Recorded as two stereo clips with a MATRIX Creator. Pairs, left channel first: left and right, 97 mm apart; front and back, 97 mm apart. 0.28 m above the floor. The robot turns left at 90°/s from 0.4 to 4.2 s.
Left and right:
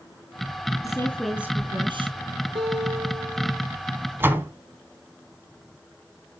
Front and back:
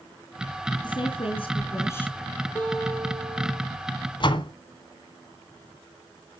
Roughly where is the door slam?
Ahead right.